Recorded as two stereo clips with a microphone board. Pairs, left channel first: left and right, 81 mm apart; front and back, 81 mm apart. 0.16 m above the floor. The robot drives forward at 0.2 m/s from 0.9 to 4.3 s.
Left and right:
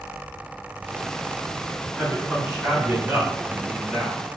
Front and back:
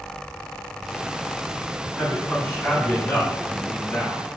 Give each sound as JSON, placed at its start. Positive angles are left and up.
{"t": 1.9, "sound": "a man speaking", "azimuth_deg": -50, "distance_m": 1.6}